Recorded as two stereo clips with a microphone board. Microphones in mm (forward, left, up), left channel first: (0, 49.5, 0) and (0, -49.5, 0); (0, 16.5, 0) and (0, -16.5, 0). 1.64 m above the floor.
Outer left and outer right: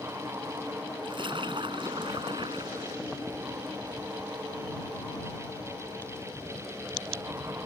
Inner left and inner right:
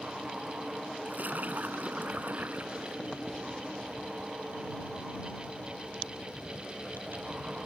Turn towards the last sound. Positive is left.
turn(degrees=-55)  # may be behind; listen again after turning